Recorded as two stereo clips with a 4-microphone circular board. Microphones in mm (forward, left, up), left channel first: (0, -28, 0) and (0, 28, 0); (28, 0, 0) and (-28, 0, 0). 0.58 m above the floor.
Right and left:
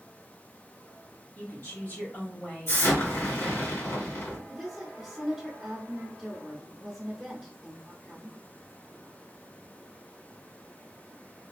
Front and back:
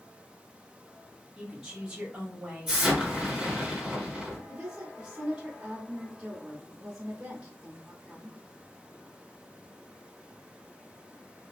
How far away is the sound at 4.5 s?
About 0.9 m.